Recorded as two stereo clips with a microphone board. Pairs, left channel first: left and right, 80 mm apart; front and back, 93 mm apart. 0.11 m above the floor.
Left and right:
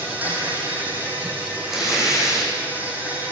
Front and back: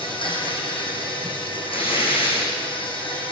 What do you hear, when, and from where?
0.0 s an insect: 20° right, 5.5 m
1.7 s tearing paper: 5° right, 6.5 m